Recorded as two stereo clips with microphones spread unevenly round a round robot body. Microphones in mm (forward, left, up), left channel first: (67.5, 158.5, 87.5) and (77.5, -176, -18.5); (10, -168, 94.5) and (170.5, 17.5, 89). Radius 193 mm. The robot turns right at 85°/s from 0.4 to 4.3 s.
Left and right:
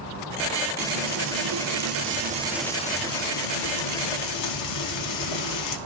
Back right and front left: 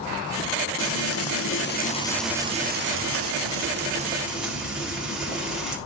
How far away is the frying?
About 1.7 m.